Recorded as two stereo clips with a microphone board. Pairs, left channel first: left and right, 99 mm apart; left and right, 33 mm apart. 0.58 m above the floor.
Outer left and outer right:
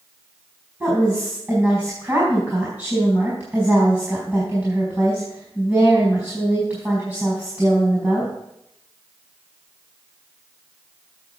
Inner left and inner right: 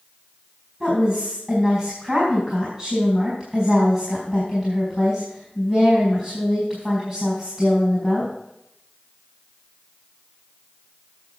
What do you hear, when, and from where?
0.8 s a woman speaking: 25° right (ahead or behind), 4.5 m